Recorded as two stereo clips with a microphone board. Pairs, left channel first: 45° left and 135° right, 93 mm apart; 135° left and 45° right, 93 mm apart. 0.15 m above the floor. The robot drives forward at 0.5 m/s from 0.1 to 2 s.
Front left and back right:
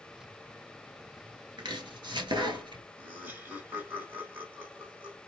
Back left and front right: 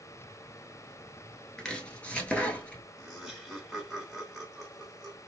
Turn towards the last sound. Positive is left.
turn(degrees=-140)